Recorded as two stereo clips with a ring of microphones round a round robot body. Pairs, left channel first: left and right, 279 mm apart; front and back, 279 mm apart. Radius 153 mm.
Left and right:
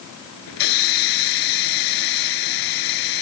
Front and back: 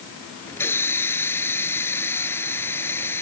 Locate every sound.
0.5 s a hiss: 85° left